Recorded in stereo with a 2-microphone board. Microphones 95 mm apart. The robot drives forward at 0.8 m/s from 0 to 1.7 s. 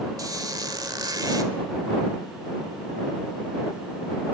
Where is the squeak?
40° right (ahead or behind), 1.8 m; by 1.5 s 45° right (ahead or behind), 1.7 m.